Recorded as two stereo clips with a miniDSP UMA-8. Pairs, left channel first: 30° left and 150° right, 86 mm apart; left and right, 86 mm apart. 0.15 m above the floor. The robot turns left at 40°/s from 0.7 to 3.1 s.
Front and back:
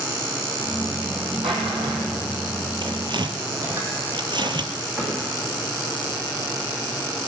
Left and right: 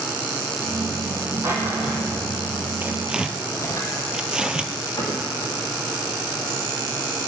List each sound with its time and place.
1.4 s a drawer: 145° right, 2.5 m; by 3.8 s 145° left, 2.5 m
2.8 s tearing paper: 155° right, 0.9 m; by 4.7 s 170° right, 0.9 m
5.0 s a cupboard door: 125° left, 5.5 m